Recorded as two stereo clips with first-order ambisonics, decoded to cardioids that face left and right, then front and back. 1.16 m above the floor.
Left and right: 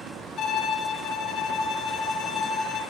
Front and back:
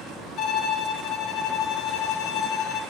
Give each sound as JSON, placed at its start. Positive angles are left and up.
{"t": 0.4, "sound": "a violin", "azimuth_deg": 40, "distance_m": 0.7}